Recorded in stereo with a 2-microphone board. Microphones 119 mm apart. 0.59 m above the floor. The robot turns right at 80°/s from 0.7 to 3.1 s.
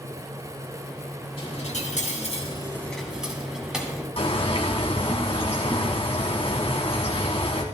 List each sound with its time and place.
1.4 s a dropped coin: 45° left, 2 m; by 4.1 s 175° right, 2 m
4.2 s a bird: 55° left (ahead or behind), 2 m